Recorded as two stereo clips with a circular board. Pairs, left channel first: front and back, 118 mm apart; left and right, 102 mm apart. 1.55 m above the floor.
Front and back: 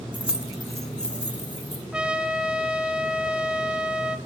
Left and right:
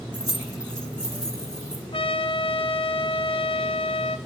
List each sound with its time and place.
0.1 s keys jangling: 110° right, 0.6 m; by 1.8 s 75° right, 1.3 m
1.9 s a trumpet: 100° left, 0.6 m